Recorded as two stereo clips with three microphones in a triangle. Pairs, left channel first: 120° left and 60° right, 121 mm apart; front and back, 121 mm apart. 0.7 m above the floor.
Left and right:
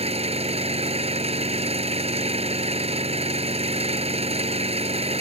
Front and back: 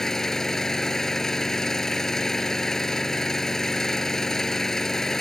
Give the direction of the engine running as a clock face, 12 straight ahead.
3 o'clock.